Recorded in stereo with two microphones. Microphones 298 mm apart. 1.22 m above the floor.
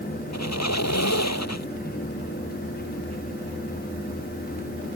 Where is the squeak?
60° left (ahead or behind).